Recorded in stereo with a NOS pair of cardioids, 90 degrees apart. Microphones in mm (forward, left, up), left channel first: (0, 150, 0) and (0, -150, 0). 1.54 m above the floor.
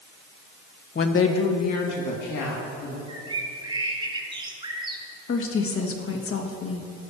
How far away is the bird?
About 1.6 m.